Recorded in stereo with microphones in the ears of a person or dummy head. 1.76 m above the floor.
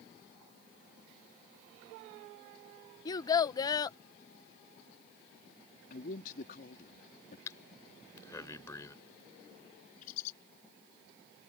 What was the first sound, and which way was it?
A child speaking, 25° left (ahead or behind).